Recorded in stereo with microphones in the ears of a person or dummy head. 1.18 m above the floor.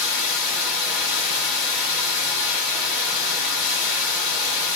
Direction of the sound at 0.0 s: 60° left (ahead or behind).